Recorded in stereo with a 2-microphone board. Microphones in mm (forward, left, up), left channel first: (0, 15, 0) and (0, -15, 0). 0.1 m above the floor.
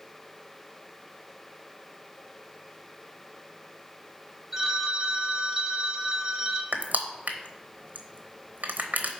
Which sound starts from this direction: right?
Crushing, at 6.7 s.